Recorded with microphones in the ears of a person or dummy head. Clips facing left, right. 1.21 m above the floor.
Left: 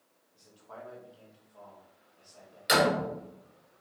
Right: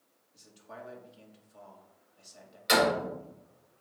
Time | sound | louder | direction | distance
0.3 | a man speaking | even | 25° right (ahead or behind) | 1.7 m
2.7 | a door slam | even | 5° left (ahead or behind) | 3.5 m